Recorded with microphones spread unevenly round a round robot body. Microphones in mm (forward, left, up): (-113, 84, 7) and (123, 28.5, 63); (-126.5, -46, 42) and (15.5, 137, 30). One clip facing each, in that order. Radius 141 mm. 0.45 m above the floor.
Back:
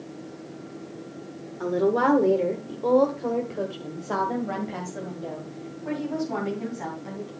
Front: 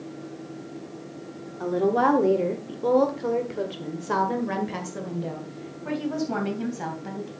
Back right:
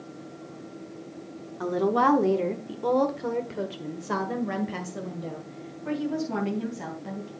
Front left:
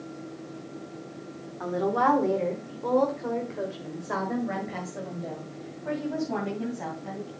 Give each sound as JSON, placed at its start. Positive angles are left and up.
{"t": 1.6, "sound": "a woman speaking", "azimuth_deg": -140, "distance_m": 1.1}